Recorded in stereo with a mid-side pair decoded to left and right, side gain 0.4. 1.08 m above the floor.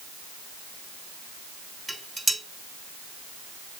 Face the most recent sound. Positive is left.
turn(degrees=-10)